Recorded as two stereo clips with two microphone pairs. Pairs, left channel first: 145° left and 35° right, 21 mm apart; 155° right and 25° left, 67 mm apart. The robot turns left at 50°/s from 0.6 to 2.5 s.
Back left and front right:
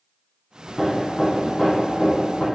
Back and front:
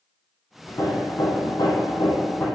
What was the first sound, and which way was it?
Hammering, 110° right.